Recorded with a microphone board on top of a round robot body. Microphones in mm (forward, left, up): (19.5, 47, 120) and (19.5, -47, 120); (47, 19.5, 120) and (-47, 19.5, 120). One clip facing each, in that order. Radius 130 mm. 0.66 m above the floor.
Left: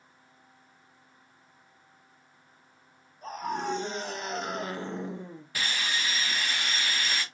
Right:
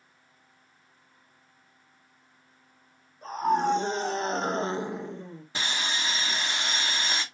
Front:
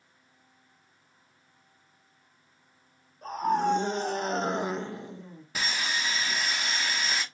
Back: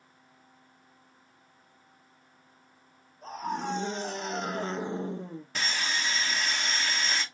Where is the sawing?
75° right, 1.1 m.